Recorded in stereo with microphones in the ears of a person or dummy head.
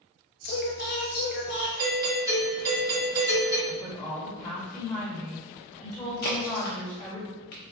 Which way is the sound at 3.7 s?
15° left (ahead or behind).